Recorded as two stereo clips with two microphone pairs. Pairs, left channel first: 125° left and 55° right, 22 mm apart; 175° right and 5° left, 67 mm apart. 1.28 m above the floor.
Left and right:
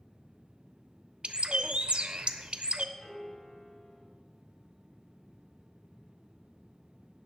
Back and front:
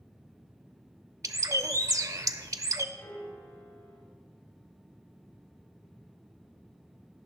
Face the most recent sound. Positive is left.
turn(degrees=175)